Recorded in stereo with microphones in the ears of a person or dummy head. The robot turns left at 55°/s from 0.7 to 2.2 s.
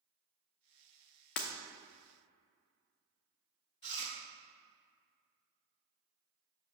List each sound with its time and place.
1.4 s breaking glass: 50° left (ahead or behind), 0.8 m; by 1.5 s 45° left (ahead or behind), 0.8 m
3.8 s chewing: 20° left (ahead or behind), 0.9 m